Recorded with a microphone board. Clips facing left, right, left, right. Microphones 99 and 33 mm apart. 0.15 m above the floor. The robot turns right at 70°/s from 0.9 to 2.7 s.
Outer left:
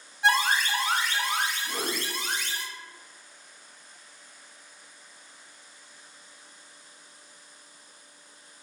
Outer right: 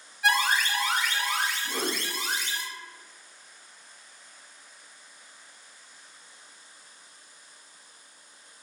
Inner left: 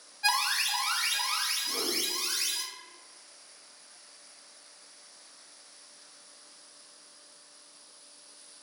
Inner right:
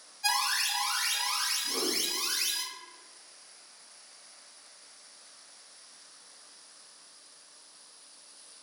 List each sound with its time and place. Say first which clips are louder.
0.2 s an alarm: outer left 1 dB, inner left 1 dB; 95° left, 0.8 m; by 2.6 s 145° right, 0.8 m
1.6 s a whoosh: outer right 1 dB, even; centre (ahead or behind), 0.7 m; by 2.0 s 30° right (ahead or behind), 0.7 m